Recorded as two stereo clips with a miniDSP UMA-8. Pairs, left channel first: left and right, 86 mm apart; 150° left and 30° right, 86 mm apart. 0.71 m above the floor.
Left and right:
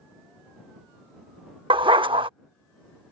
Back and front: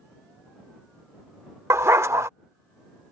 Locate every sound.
1.7 s a dog barking: 85° right